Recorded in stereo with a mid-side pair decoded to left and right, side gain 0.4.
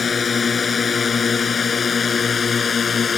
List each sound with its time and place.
0.0 s a drone: 35° left; by 3.2 s 40° left